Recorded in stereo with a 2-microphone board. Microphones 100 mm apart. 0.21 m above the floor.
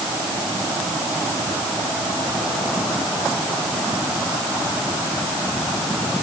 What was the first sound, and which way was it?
Only background noise.